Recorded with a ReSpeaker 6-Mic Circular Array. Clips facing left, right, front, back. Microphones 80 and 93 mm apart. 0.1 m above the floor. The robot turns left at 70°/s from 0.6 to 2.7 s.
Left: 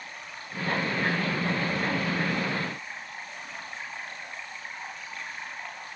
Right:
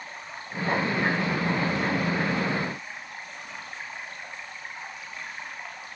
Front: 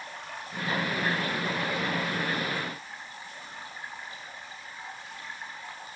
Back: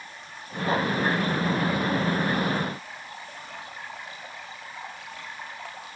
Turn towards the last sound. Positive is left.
turn(degrees=-170)